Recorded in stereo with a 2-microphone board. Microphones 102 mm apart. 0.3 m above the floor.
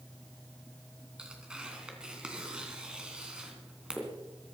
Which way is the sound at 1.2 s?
10° right (ahead or behind).